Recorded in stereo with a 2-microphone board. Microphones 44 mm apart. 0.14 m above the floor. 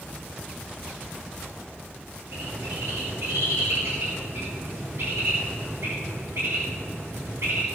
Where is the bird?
75° right (ahead or behind), 6 m.